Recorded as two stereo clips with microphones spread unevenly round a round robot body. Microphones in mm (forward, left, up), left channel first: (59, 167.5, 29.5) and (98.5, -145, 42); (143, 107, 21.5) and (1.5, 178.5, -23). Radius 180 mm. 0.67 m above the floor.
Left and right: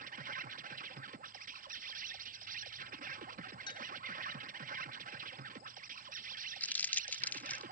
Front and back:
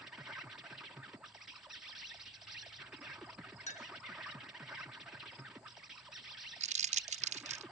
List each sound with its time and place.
0.0 s an insect: 140° right
3.7 s a clink: 20° left
6.6 s crumpling: straight behind